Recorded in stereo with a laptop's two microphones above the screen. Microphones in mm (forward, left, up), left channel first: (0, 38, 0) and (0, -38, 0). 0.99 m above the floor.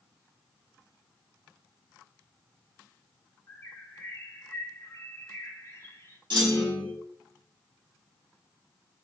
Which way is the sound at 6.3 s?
75° right (ahead or behind).